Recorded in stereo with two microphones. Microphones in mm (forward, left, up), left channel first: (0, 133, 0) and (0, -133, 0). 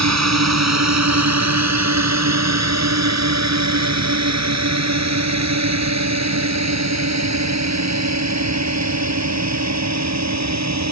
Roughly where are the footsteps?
I don't hear footsteps.